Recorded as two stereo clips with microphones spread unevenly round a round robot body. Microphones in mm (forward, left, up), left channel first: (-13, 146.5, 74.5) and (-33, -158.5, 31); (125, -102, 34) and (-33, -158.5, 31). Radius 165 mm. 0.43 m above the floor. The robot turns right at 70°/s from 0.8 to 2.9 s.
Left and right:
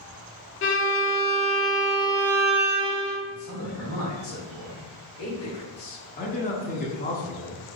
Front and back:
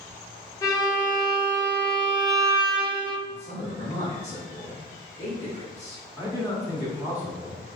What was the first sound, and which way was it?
A violin, 75° left.